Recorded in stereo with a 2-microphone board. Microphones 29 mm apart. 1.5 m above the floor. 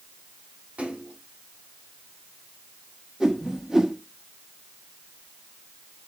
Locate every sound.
0.8 s a splash: 80° right, 3.5 m
3.2 s a whoosh: 25° right (ahead or behind), 1.0 m